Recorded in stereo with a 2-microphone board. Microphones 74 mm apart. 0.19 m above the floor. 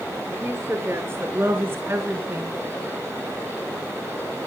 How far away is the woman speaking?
About 3.5 m.